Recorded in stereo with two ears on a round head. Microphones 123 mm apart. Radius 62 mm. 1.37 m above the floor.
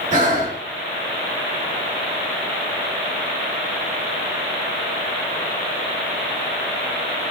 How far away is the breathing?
About 1.8 m.